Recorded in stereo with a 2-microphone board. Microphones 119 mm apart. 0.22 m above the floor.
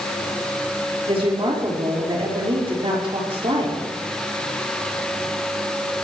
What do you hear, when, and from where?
1.1 s a woman speaking: 55° right (ahead or behind), 5.5 m